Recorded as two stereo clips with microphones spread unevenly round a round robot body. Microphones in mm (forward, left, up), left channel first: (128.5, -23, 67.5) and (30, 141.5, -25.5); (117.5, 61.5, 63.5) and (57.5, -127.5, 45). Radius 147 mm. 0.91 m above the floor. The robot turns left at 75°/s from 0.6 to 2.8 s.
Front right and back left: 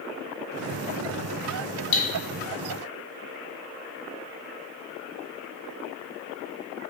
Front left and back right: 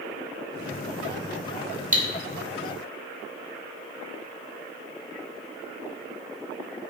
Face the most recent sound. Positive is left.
turn(degrees=-120)